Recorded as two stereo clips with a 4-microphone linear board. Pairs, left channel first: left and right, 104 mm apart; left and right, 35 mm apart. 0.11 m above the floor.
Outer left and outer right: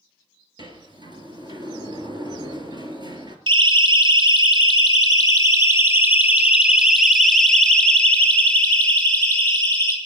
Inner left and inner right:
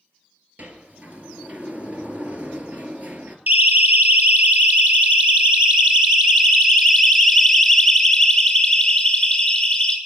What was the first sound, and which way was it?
A sliding door, 45° right (ahead or behind).